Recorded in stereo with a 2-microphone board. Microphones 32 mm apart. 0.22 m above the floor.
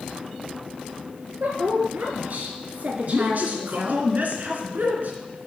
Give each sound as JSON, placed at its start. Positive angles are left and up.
{"t": 1.4, "sound": "a woman speaking", "side_deg": -60, "distance_m": 4.0}
{"t": 3.1, "sound": "a man speaking", "side_deg": -55, "distance_m": 3.0}